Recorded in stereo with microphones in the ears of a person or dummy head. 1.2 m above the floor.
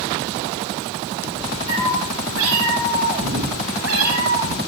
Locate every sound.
1.7 s a cat meowing: 75° right (ahead or behind), 4.5 m; by 4.6 s 80° right, 5.5 m